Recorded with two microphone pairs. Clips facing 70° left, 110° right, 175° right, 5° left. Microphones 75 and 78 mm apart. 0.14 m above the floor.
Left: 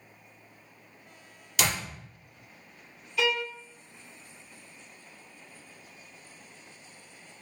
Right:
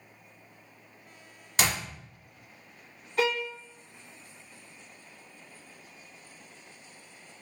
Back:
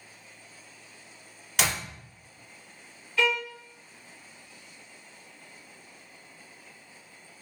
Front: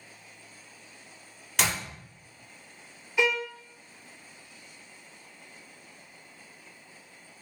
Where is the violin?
65° right, 0.6 m.